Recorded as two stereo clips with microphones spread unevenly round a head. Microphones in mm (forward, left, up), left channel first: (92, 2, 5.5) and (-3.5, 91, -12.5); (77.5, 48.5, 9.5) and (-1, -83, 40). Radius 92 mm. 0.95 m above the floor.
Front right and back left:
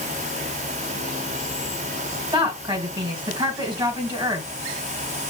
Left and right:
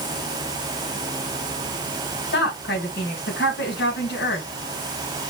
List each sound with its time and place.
2.3 s a woman speaking: 80° left, 3.5 m